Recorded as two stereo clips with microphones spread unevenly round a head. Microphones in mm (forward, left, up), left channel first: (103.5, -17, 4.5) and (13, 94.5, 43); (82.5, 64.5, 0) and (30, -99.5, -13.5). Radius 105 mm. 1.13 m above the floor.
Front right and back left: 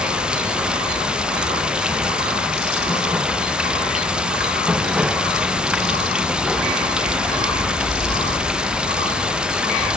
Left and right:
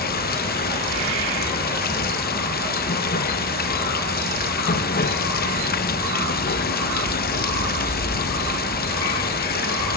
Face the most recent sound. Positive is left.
turn(degrees=40)